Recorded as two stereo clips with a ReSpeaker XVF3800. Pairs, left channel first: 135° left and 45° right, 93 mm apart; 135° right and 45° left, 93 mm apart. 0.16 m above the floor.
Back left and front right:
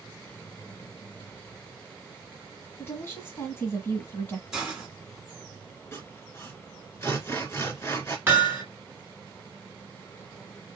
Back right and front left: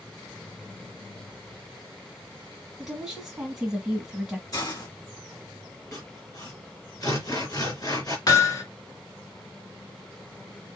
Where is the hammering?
105° right, 1.7 m.